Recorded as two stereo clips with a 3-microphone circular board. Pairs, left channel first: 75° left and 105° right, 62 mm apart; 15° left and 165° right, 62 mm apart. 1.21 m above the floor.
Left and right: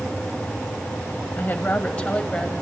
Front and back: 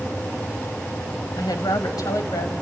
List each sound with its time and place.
1.4 s a woman speaking: 15° left, 1.2 m; by 2.5 s 5° right, 1.8 m